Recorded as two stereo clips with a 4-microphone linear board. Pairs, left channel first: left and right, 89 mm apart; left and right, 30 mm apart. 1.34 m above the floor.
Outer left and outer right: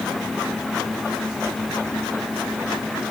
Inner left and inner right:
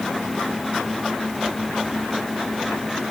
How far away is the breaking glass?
No breaking glass in this recording.